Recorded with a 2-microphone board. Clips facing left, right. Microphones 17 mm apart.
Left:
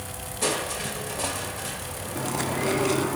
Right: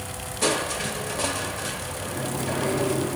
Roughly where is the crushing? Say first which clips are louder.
Right 3 dB; centre.